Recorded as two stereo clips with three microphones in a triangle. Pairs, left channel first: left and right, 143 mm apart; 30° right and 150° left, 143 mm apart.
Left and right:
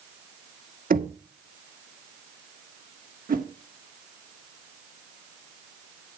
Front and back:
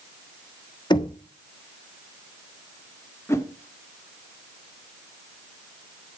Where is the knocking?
90° right, 1.6 m.